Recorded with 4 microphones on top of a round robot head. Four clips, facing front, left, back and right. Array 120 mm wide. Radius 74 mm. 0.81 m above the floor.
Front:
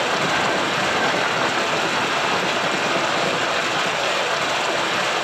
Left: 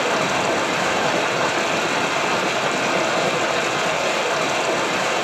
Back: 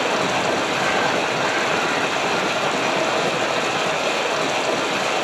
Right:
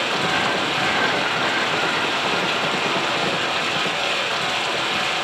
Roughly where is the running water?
Behind left.